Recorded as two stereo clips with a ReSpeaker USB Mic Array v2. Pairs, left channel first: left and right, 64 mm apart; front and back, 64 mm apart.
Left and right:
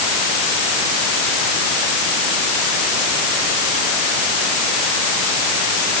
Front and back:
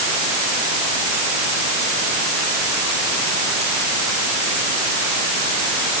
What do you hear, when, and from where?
Only background noise.